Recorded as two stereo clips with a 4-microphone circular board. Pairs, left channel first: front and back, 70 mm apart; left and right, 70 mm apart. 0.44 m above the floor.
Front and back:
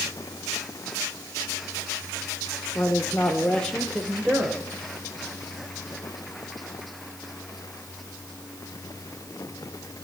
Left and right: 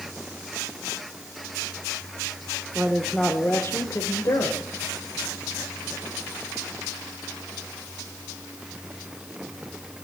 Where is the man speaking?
25° right, 1.0 m; by 4.6 s 100° left, 1.6 m.